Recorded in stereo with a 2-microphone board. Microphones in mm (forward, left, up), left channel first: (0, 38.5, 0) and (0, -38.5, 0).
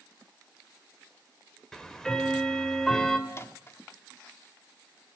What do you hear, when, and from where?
1.7 s ticking: 5° left (ahead or behind), 2.5 m
3.3 s a microwave: 35° left (ahead or behind), 1.2 m